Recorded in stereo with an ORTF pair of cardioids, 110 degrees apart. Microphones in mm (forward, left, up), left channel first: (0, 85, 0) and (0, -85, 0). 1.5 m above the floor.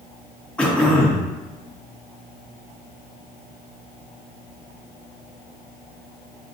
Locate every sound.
0.6 s throat clearing: 5° left, 0.9 m